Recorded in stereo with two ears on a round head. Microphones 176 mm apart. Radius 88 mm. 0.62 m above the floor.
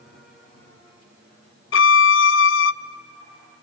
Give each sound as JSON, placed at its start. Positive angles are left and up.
{"t": 1.7, "sound": "a violin", "side_deg": 65, "distance_m": 0.6}